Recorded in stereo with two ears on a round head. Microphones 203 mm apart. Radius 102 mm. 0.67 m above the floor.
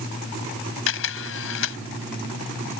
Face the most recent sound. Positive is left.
turn(degrees=65)  # may be behind; listen again after turning